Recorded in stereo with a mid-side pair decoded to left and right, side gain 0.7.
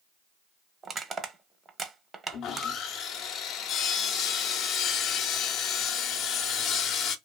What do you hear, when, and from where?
0.8 s crushing: 25° right, 0.7 m
2.3 s sawing: 50° left, 0.6 m